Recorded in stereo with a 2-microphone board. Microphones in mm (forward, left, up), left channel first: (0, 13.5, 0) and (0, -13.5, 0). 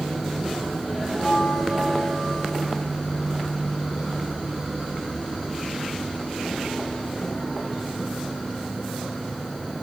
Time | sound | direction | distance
1.1 | a bell | 25° left (ahead or behind) | 2.5 m